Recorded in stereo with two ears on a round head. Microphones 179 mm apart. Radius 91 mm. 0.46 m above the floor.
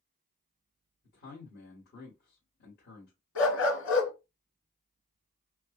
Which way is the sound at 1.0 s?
55° left (ahead or behind).